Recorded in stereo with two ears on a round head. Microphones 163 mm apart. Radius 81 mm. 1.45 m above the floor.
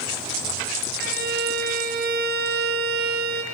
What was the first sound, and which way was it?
A violin, 60° right (ahead or behind).